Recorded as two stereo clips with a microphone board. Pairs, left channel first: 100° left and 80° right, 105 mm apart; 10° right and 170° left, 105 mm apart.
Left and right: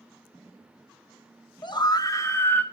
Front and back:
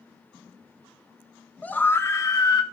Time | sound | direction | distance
1.6 | a scream | 65° left | 1.3 m